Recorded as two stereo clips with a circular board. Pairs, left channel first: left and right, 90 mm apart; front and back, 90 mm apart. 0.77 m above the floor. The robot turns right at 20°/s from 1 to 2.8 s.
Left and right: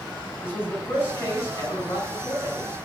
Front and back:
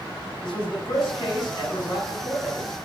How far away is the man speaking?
About 6.5 m.